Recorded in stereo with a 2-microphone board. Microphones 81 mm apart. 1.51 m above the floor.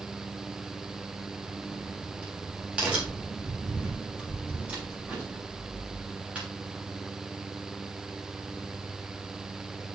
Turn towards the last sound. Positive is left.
turn(degrees=-15)  # may be behind; listen again after turning